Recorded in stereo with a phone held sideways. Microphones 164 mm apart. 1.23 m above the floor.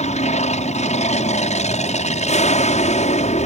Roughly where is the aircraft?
Left.